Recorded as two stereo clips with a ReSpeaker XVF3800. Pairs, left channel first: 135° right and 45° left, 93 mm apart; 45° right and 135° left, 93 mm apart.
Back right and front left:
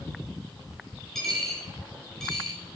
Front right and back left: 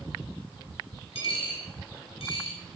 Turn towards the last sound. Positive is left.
turn(degrees=-50)